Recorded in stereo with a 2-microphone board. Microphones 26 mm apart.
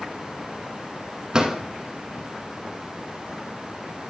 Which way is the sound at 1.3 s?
30° right (ahead or behind).